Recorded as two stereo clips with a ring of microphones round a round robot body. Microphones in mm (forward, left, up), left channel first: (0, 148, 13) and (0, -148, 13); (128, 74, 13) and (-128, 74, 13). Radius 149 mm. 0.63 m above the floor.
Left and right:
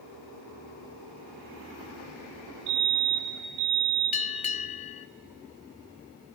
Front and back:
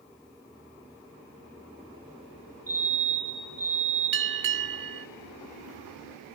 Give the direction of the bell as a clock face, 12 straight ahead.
7 o'clock.